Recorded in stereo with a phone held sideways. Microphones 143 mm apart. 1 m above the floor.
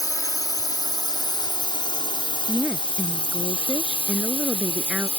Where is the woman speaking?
5° right (ahead or behind).